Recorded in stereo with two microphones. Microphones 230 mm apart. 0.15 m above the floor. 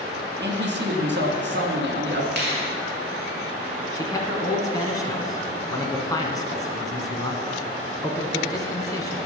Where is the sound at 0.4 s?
50° right (ahead or behind), 1.7 m.